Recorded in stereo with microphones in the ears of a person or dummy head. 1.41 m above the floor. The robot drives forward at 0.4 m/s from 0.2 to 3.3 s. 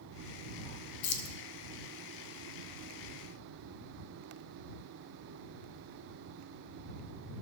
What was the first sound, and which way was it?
Keys jangling, 55° left (ahead or behind).